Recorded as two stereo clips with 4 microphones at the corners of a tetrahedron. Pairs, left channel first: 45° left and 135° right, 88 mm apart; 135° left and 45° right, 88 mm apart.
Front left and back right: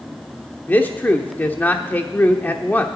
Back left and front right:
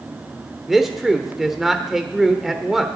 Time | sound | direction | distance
0.7 | a man speaking | 35° left | 0.9 m